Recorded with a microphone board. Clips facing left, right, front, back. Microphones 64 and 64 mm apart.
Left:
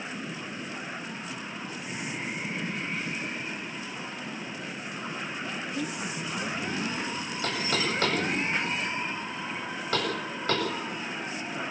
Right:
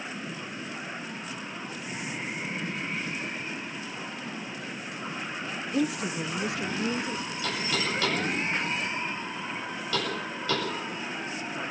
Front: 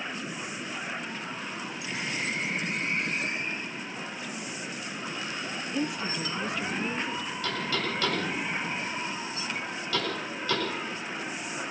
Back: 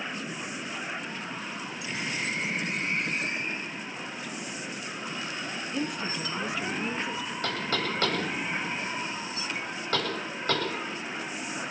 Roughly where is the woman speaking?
Right.